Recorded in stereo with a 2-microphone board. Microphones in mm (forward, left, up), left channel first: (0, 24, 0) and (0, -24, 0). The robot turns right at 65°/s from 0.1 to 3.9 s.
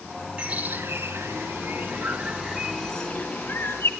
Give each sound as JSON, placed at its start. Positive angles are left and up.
{"t": 0.4, "sound": "a bird", "side_deg": -20, "distance_m": 1.7}